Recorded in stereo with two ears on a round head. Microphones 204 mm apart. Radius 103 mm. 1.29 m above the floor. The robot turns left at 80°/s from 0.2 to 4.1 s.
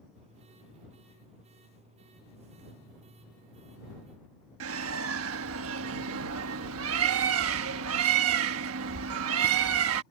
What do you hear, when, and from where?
4.6 s a bird: 65° right (ahead or behind)